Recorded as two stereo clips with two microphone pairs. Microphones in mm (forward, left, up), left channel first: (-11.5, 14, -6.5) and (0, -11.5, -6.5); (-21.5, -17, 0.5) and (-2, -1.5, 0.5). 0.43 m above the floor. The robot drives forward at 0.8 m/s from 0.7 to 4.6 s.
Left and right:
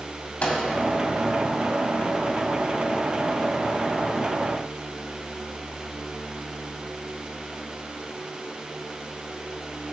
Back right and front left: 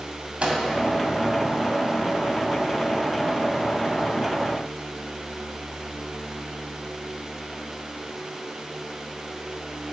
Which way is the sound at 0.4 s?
70° left.